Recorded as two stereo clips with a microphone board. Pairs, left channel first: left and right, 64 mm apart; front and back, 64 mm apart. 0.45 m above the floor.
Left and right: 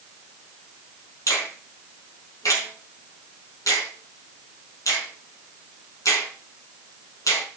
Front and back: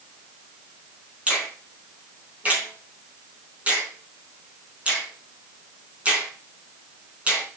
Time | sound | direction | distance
1.3 | a finger snap | 110° left | 4 m